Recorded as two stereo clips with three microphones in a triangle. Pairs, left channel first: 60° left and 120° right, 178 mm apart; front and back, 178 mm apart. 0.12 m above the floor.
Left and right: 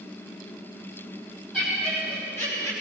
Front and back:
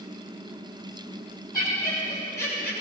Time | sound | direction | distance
1.5 | laughter | 30° right | 4 m